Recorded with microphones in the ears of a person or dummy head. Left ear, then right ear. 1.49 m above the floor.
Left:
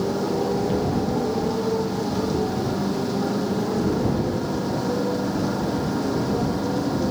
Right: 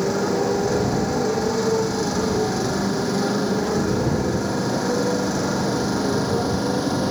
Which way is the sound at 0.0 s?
70° right (ahead or behind).